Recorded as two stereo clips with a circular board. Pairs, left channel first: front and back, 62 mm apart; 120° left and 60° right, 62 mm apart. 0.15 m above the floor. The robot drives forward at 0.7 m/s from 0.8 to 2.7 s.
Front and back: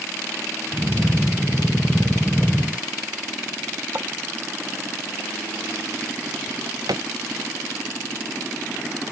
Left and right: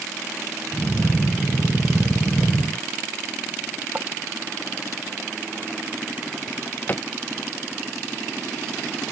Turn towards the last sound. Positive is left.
turn(degrees=180)